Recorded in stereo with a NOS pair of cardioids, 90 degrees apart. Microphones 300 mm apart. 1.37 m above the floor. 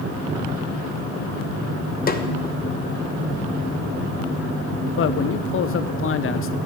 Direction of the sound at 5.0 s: 45° left.